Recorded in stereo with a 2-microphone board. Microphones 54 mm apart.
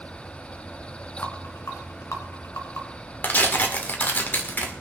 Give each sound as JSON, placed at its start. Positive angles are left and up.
{"t": 1.2, "sound": "a rattle", "side_deg": 65, "distance_m": 2.5}
{"t": 3.2, "sound": "tearing paper", "side_deg": 35, "distance_m": 1.8}